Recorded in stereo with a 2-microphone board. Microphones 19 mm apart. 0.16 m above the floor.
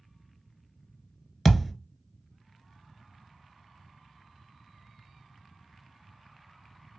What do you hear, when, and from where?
1.4 s a thud: 5° left (ahead or behind), 0.6 m